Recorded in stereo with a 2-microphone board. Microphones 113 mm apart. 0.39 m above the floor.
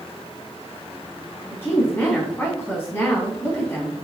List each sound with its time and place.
1.5 s a woman speaking: 20° left (ahead or behind), 3.5 m